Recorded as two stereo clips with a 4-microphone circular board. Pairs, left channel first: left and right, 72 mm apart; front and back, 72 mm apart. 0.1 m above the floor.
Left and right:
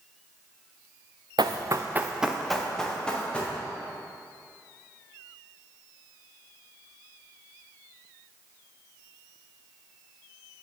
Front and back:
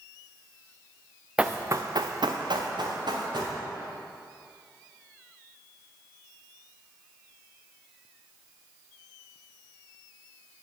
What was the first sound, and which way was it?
Running footsteps, 105° right.